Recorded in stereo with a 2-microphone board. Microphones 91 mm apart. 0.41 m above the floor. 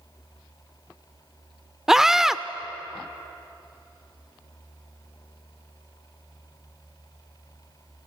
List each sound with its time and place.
1.9 s a scream: 5° right (ahead or behind), 0.8 m